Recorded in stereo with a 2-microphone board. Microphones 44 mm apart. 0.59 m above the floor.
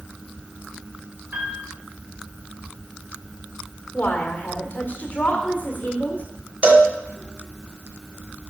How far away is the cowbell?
About 0.8 m.